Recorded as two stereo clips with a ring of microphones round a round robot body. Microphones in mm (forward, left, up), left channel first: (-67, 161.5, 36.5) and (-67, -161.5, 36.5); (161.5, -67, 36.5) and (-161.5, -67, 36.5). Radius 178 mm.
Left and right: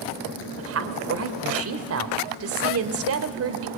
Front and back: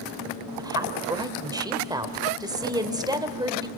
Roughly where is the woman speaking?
Right.